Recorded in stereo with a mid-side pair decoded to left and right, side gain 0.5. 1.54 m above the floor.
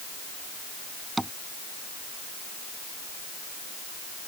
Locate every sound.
1.2 s tapping: 5° right